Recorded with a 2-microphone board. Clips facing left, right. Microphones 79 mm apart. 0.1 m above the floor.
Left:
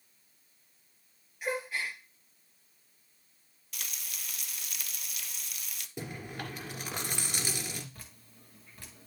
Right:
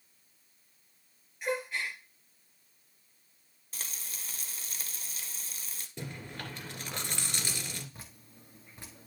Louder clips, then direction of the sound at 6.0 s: Left 2 dB; 15° left (ahead or behind).